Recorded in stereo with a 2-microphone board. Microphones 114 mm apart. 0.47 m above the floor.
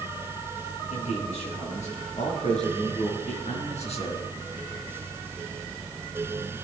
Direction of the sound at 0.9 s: 80° left.